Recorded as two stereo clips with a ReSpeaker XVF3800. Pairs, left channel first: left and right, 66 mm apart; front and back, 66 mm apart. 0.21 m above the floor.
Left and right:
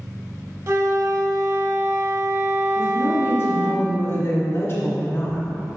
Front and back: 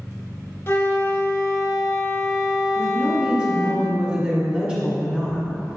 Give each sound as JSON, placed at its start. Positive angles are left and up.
{"t": 0.7, "sound": "a flute", "azimuth_deg": -55, "distance_m": 0.8}
{"t": 2.8, "sound": "a woman speaking", "azimuth_deg": 110, "distance_m": 1.4}